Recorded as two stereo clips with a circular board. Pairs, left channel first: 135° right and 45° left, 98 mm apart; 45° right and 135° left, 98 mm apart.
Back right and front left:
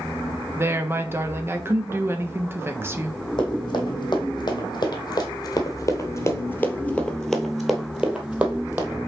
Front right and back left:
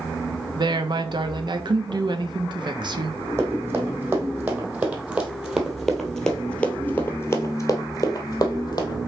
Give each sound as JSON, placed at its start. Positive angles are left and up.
{"t": 0.6, "sound": "a woman speaking", "azimuth_deg": 105, "distance_m": 1.1}
{"t": 3.4, "sound": "running footsteps", "azimuth_deg": -165, "distance_m": 3.5}